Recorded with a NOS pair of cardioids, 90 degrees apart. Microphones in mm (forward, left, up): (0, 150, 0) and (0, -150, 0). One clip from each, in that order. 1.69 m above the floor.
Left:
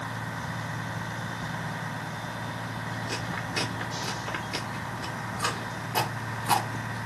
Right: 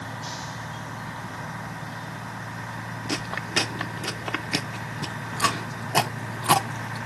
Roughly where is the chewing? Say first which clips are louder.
Right 7 dB; ahead right.